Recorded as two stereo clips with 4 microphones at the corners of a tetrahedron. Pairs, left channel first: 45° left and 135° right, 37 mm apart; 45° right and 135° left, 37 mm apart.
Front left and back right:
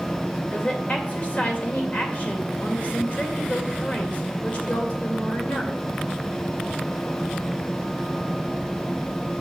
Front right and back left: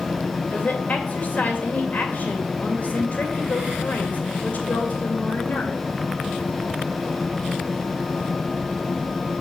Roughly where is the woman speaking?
Ahead.